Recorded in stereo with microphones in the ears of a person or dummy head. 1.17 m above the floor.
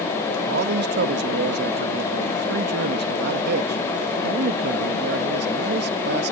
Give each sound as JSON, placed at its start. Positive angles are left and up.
{"t": 0.5, "sound": "a man speaking", "side_deg": -60}